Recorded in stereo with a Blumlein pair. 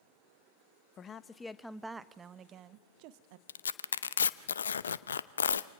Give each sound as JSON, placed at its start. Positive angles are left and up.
{"t": 1.0, "sound": "a woman speaking", "azimuth_deg": 25, "distance_m": 1.1}
{"t": 3.5, "sound": "tearing paper", "azimuth_deg": 70, "distance_m": 0.7}